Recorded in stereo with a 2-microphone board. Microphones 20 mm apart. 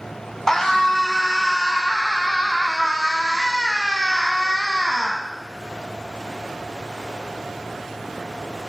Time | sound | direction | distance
0.5 | a scream | 25° left (ahead or behind) | 1.3 m